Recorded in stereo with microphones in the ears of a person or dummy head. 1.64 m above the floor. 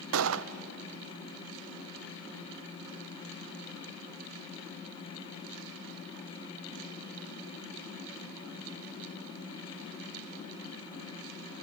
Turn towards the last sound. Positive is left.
turn(degrees=-80)